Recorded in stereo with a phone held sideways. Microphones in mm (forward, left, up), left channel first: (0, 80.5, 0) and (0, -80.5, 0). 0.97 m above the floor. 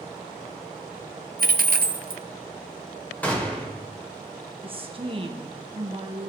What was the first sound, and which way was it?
A dropped coin, 65° right (ahead or behind).